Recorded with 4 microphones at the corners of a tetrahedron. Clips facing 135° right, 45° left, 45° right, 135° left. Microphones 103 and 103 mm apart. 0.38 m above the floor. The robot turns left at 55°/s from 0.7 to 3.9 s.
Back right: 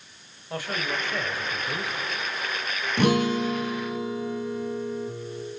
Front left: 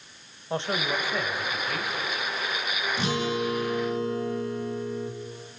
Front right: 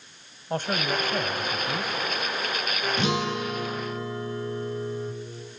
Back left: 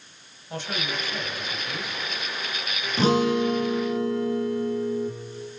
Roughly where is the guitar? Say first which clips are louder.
Back right 7 dB, back left 8 dB; behind.